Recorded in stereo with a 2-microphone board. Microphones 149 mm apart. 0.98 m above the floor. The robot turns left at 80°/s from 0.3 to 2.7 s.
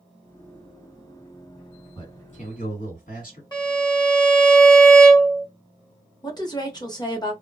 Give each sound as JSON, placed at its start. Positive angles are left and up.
{"t": 1.9, "sound": "a man speaking", "azimuth_deg": 150, "distance_m": 1.9}
{"t": 3.5, "sound": "a violin", "side_deg": 30, "distance_m": 1.0}
{"t": 6.2, "sound": "a woman speaking", "side_deg": 25, "distance_m": 0.9}